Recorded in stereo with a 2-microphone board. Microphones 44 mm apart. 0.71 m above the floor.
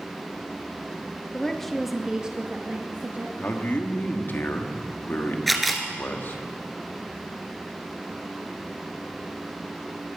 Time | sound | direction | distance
1.3 | a woman speaking | 15° left (ahead or behind) | 0.9 m
3.4 | a man speaking | 50° left (ahead or behind) | 1.3 m
5.5 | a camera shutter | centre (ahead or behind) | 1.7 m